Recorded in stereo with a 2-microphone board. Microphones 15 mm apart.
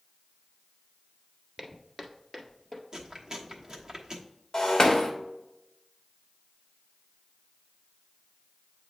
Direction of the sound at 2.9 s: 35° right (ahead or behind).